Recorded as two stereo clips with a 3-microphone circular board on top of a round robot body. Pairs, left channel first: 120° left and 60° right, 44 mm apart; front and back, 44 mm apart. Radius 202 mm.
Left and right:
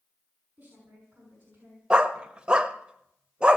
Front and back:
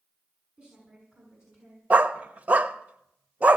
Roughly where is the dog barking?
Behind right.